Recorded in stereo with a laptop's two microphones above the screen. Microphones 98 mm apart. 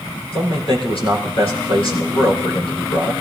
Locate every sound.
0.3 s a man speaking: 65° left (ahead or behind), 4.5 m